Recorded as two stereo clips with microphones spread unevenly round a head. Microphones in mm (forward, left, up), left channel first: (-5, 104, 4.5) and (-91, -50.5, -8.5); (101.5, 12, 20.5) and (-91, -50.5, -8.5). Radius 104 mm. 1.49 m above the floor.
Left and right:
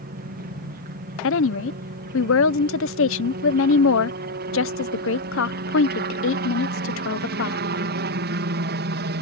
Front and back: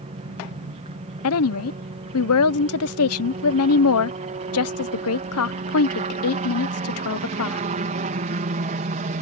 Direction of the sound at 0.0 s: 115° right.